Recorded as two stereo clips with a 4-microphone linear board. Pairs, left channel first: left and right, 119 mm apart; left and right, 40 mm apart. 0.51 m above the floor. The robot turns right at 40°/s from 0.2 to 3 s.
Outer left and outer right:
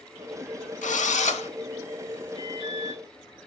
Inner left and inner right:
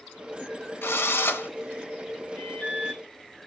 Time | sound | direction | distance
0.8 | a drill | 85° left | 0.9 m
2.4 | an alarm | 55° left (ahead or behind) | 4 m